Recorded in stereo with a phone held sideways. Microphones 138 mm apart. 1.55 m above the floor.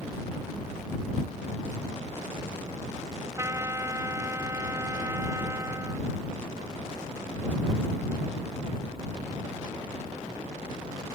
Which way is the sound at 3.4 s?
20° right (ahead or behind).